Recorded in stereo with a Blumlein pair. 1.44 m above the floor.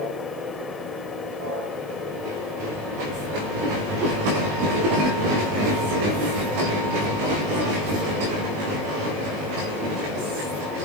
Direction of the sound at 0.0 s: 20° left.